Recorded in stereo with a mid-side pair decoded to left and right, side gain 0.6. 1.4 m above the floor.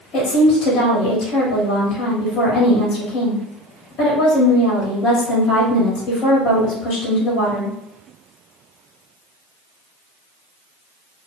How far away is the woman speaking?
About 1.4 m.